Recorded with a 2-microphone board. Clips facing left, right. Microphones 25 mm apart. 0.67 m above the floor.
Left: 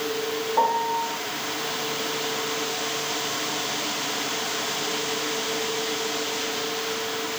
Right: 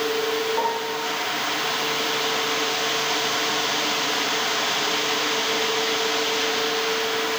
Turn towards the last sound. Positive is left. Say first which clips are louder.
# left 2 dB
turn(degrees=20)  # may be behind; listen again after turning